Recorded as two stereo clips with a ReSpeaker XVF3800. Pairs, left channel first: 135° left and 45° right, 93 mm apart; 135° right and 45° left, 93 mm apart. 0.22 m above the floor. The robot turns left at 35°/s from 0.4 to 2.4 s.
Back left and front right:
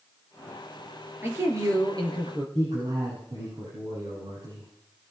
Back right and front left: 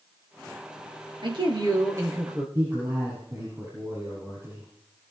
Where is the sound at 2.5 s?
15° right, 7.5 m.